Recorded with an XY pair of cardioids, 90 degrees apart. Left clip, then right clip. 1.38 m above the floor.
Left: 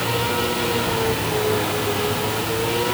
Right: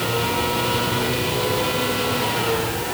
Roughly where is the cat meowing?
I don't hear a cat meowing.